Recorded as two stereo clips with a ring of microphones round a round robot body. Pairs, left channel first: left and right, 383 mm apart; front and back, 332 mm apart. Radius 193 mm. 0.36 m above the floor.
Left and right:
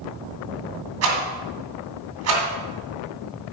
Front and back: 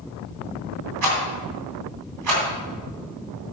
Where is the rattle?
140° right, 2.5 m.